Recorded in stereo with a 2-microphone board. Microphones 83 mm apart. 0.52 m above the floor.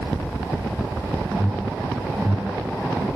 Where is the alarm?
15° left (ahead or behind), 6 m.